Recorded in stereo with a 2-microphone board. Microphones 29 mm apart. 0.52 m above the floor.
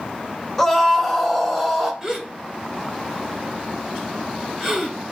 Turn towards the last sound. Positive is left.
turn(degrees=-15)  # may be behind; listen again after turning